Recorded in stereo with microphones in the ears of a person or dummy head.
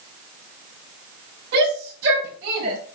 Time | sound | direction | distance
1.5 | a shout | 55° right (ahead or behind) | 5 m